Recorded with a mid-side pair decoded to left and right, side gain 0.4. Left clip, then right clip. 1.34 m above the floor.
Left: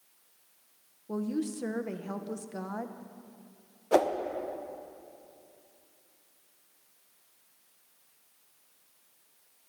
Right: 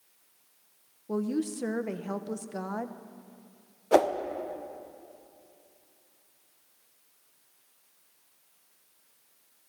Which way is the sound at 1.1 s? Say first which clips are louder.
Right 3 dB; 25° right.